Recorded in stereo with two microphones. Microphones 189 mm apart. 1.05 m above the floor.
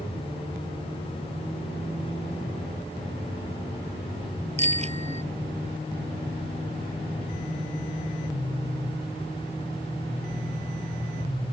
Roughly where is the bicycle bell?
Right.